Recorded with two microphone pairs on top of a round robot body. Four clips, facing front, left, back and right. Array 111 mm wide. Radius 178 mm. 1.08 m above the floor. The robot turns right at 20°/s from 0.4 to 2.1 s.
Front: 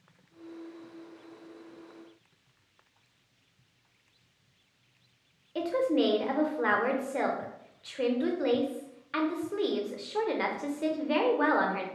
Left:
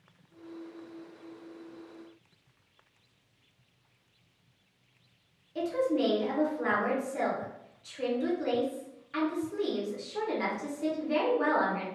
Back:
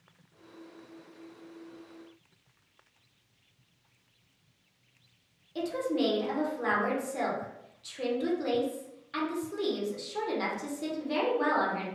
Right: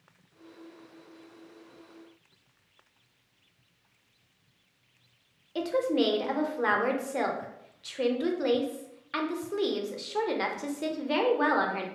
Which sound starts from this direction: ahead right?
A woman speaking, at 5.5 s.